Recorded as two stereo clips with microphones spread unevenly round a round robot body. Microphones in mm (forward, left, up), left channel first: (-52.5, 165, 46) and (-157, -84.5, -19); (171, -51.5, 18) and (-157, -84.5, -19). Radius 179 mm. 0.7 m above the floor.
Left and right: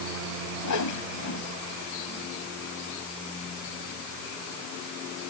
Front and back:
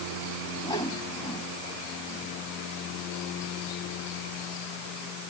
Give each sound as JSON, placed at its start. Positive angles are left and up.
{"t": 0.6, "sound": "a whoosh", "azimuth_deg": 85}